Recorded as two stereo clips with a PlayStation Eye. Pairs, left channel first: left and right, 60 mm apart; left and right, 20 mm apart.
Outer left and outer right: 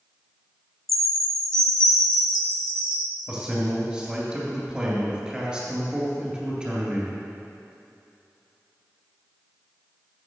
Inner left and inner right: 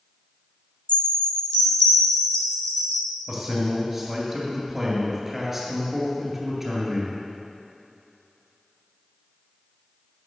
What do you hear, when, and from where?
0.9 s a chime: 65° left (ahead or behind), 0.9 m
3.3 s a man speaking: 15° right (ahead or behind), 3 m